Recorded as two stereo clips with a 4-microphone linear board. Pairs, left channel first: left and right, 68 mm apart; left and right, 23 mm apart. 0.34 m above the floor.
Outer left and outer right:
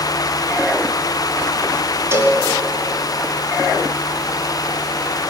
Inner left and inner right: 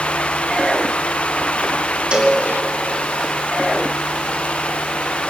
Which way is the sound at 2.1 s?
35° right (ahead or behind).